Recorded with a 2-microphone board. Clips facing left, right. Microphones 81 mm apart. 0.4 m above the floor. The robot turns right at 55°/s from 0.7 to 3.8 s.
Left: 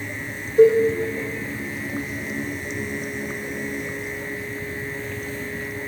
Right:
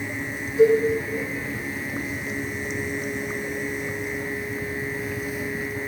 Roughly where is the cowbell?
Left.